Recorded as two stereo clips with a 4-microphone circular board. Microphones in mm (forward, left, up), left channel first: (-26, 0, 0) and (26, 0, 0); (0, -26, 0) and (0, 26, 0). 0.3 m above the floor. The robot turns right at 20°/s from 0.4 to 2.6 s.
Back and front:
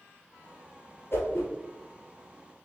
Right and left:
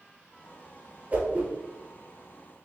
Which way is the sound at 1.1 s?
150° left.